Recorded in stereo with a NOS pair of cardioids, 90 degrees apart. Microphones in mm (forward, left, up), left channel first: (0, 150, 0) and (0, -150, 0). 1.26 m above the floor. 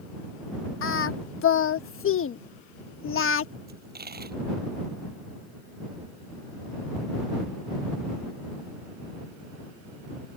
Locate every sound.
0.8 s singing: 40° left
3.7 s a dropped coin: 30° right